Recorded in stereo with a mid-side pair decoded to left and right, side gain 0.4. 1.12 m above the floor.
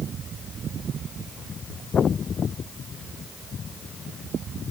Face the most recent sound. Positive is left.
No sound to turn to.